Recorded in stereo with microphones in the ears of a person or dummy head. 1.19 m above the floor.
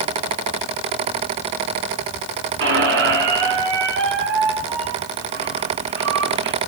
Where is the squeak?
60° right (ahead or behind), 2.5 m.